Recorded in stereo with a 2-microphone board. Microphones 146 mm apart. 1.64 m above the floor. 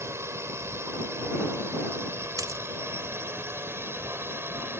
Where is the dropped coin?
25° right (ahead or behind).